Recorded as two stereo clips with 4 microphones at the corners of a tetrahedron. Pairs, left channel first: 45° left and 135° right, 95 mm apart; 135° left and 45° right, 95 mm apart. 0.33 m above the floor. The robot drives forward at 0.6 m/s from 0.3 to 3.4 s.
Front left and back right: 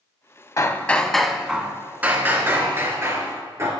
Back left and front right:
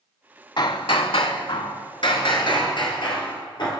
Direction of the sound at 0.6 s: 100° left.